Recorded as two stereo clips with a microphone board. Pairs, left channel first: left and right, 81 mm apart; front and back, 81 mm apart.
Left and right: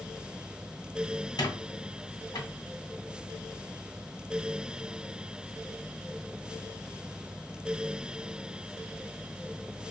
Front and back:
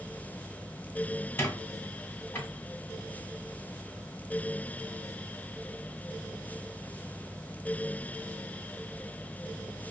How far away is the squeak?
About 1.5 m.